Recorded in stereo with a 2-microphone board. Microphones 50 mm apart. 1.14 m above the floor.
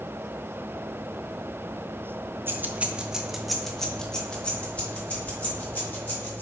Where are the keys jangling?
45° right (ahead or behind), 0.7 m; by 6.4 s 35° left (ahead or behind), 2.5 m.